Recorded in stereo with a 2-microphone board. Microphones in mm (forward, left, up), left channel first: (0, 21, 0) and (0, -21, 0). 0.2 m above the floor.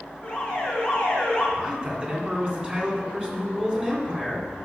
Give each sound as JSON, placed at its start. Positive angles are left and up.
{"t": 0.2, "sound": "an alarm", "side_deg": 15, "distance_m": 3.0}
{"t": 1.6, "sound": "a man speaking", "side_deg": -20, "distance_m": 2.5}